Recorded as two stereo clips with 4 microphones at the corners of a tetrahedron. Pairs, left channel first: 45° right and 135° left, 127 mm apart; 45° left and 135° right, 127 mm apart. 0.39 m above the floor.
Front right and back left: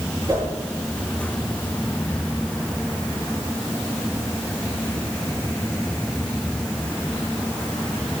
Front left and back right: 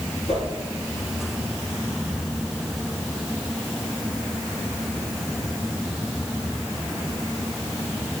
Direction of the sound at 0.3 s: 75° left.